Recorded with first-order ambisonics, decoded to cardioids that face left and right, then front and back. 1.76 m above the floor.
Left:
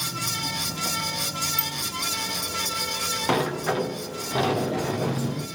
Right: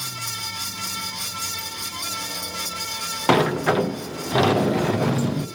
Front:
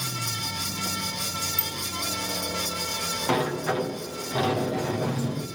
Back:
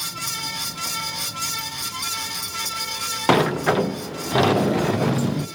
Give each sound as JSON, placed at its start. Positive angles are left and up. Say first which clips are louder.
{"t": 1.6, "sound": "a bicycle bell", "louder": "left 2 dB, back 2 dB", "azimuth_deg": 45, "distance_m": 2.5}
{"t": 3.3, "sound": "a sliding door", "louder": "right 8 dB, back 9 dB", "azimuth_deg": -145, "distance_m": 0.6}